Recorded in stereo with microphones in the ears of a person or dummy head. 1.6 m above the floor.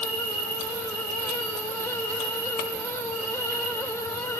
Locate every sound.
0.0 s an insect: 75° right (ahead or behind), 3 m